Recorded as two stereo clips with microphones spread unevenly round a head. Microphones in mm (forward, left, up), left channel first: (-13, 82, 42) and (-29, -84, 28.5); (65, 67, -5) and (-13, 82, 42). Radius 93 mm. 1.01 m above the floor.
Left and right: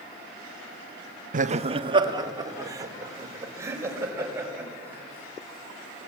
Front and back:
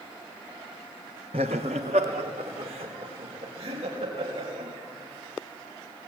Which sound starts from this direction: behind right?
Laughter, at 1.3 s.